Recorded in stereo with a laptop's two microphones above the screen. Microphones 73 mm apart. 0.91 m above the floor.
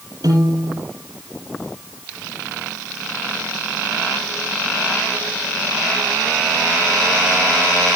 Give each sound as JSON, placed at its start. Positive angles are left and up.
{"t": 0.2, "sound": "a piano", "side_deg": -60, "distance_m": 4.0}